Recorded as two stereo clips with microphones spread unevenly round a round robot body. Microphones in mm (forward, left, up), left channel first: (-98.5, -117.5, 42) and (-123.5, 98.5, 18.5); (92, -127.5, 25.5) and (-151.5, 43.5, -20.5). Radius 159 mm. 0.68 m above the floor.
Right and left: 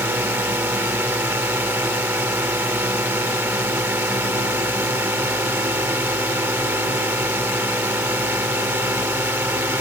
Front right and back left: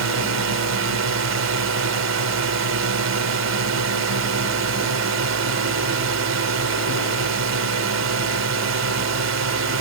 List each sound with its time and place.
0.0 s a drone: 175° left